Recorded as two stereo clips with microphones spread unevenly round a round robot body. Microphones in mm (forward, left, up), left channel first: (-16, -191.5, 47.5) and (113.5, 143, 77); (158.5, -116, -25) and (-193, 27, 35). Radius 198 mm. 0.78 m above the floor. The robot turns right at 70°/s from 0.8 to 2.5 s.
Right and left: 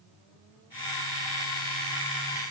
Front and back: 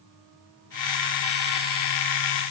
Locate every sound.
Only background noise.